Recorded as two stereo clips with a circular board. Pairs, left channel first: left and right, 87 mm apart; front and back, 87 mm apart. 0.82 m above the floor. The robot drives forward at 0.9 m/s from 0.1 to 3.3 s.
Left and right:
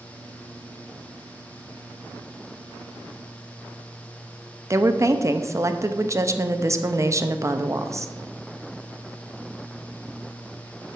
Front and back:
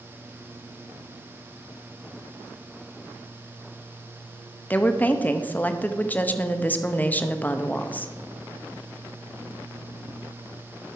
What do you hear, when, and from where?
4.7 s a woman speaking: 60° right, 0.7 m